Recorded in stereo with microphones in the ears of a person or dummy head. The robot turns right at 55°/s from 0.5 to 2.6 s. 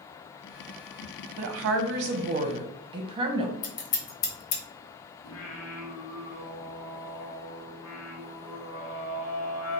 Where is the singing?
75° left (ahead or behind), 1.0 m.